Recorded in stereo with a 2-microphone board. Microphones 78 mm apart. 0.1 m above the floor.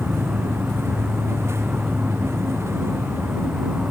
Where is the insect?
10° right (ahead or behind).